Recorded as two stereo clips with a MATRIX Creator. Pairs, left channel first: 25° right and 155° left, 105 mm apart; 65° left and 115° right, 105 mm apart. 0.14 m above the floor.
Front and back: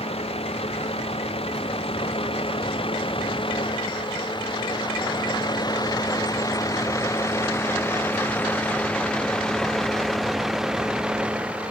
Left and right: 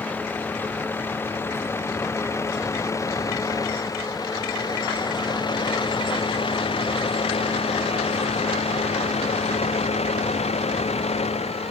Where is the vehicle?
5° right; by 11.7 s 80° left.